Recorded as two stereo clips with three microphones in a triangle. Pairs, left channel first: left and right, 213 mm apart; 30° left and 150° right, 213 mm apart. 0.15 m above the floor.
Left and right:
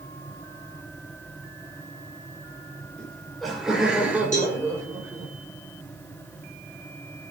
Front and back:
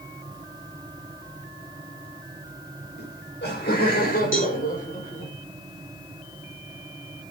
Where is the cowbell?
40° left, 7 m.